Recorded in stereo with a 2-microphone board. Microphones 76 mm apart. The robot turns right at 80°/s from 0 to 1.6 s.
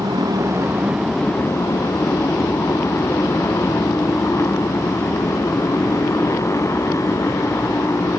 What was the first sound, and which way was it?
A motorcycle, 85° right.